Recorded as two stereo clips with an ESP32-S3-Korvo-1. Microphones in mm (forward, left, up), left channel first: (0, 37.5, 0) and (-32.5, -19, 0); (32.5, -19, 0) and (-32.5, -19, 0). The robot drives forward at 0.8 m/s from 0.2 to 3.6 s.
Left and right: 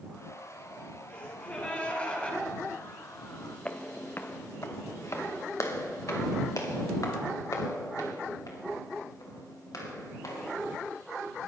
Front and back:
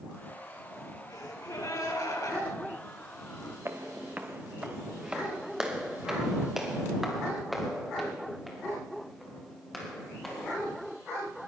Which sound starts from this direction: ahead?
A gasp, at 1.1 s.